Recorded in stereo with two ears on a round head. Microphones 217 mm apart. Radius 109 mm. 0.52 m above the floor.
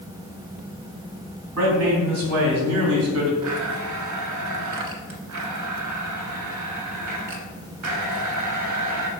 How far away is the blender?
About 1.5 m.